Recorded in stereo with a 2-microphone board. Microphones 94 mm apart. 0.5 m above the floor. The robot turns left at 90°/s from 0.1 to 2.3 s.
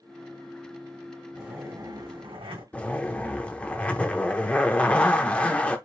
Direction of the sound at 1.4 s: Straight ahead.